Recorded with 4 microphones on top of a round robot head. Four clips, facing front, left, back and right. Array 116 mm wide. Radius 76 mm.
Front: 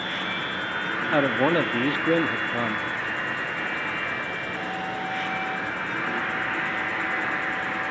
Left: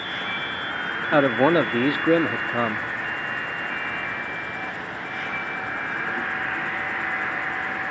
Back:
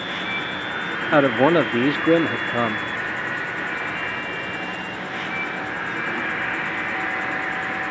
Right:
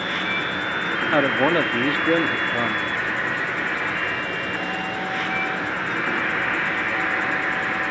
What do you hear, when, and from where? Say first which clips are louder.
0.0 s an insect: right 5 dB, back 2 dB; 100° right, 8 m
1.1 s a man speaking: left 2 dB, back 6 dB; 155° left, 0.6 m